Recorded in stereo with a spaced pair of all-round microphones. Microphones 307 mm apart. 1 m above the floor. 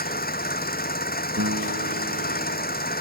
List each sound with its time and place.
0.0 s an engine running: 30° left (ahead or behind)
1.4 s a guitar: 55° right (ahead or behind)